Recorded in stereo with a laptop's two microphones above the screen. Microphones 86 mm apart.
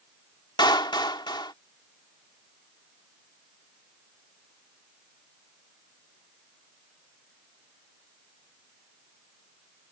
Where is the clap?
60° left (ahead or behind).